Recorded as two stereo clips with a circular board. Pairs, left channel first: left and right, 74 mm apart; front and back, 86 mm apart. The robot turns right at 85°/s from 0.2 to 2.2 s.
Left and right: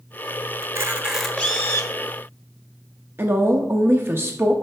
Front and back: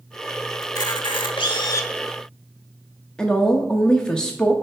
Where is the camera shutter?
50° right, 0.9 m; by 1.9 s 60° left, 0.9 m.